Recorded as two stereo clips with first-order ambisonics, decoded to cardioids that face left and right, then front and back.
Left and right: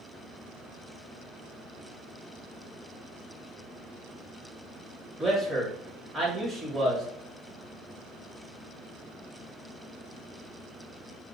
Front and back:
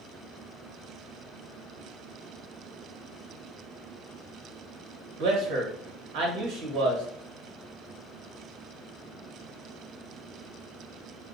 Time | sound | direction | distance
5.2 | a man speaking | 165° right | 1.3 m